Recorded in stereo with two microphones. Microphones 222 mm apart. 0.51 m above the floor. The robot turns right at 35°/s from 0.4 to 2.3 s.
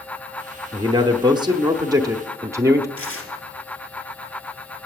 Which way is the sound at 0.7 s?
20° right (ahead or behind).